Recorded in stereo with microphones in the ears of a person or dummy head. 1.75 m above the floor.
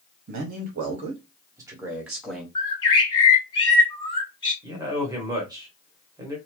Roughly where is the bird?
Left.